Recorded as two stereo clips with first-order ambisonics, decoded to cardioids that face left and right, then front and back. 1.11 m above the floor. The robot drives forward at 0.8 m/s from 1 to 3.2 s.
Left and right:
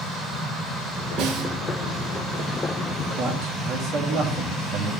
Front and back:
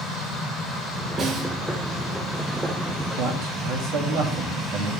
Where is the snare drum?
110° right, 2 m; by 1.5 s 120° right, 2.5 m.